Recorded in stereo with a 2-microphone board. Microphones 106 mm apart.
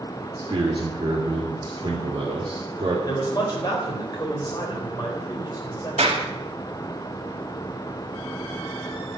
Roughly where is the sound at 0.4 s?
Right.